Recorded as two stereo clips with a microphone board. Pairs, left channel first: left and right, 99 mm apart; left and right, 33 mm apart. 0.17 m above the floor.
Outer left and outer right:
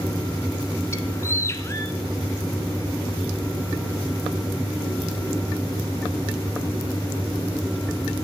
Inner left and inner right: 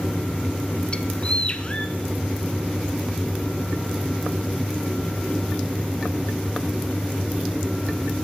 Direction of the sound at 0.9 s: 30° left (ahead or behind).